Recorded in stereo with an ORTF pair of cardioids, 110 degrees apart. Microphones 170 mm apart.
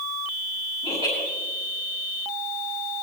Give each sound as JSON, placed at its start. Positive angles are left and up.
{"t": 0.8, "sound": "laughter", "azimuth_deg": 35, "distance_m": 5.5}